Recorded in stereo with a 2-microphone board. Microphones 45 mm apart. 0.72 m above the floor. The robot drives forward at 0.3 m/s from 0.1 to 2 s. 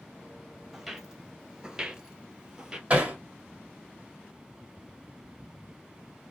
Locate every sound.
0.7 s footsteps: 5° right (ahead or behind), 1.1 m; by 2.8 s 15° right (ahead or behind), 1.0 m
2.9 s hammering: 30° right (ahead or behind), 1.5 m